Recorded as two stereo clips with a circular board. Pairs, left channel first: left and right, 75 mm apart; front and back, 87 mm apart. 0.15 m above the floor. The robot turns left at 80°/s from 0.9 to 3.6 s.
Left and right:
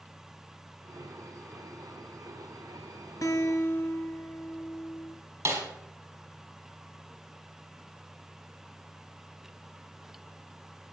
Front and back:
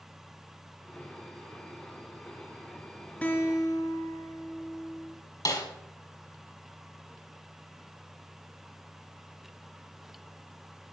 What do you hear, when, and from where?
3.2 s a guitar: 70° left, 3 m; by 5.2 s 40° left, 3 m
5.5 s a snare drum: 40° right, 4.5 m